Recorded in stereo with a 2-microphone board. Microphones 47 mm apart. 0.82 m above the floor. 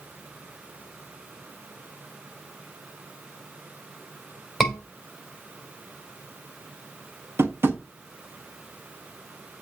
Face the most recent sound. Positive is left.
turn(degrees=-50)  # may be behind; listen again after turning